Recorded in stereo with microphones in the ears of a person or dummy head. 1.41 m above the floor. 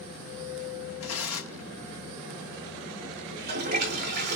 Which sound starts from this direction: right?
A toilet flushing, at 3.3 s.